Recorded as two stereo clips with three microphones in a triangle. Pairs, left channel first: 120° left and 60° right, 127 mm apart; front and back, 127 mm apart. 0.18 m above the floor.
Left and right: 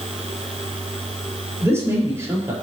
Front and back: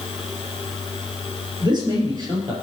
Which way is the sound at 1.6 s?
130° right.